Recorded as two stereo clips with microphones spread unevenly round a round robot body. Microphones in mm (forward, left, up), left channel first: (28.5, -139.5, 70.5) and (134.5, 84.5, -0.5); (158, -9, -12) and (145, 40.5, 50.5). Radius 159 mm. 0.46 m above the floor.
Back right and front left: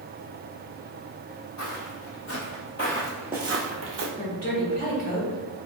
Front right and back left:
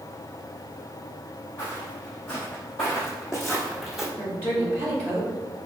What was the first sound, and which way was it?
Footsteps, 130° right.